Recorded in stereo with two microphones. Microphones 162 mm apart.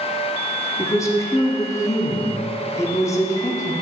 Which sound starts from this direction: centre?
A woman speaking, at 0.8 s.